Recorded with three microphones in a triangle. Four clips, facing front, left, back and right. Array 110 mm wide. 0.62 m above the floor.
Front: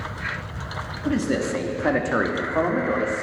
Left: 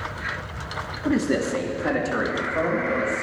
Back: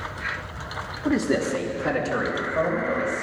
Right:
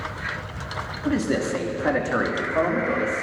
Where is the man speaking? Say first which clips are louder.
Left 1 dB, back 1 dB; 155° left, 0.8 m; by 3.2 s 20° right, 1.7 m.